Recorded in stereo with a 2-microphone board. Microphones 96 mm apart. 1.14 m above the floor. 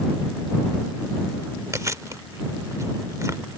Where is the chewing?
35° right (ahead or behind).